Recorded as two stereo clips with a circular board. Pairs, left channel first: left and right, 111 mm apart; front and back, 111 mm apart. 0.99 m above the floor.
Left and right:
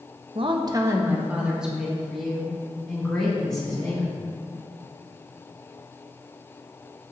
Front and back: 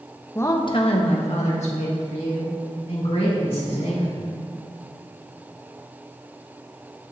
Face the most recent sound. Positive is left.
turn(degrees=10)